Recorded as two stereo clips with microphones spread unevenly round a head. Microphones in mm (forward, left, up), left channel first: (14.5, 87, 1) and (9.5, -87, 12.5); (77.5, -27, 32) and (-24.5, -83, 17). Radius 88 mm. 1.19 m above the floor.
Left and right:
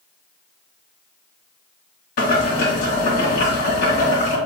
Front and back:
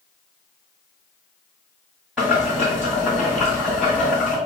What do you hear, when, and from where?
2.2 s boiling: 120° left, 1.9 m